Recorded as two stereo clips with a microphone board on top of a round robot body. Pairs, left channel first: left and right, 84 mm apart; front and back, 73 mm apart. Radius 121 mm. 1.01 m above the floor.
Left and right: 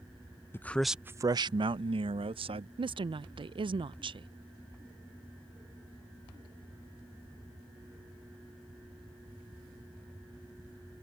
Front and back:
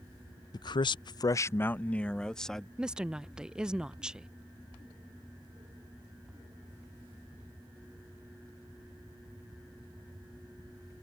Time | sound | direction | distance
0.5 | a man speaking | 25° left | ?
2.8 | a woman speaking | 100° right | ?